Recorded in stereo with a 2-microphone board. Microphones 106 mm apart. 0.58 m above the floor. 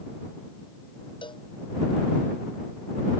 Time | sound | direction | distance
1.2 | a cowbell | 50° left (ahead or behind) | ?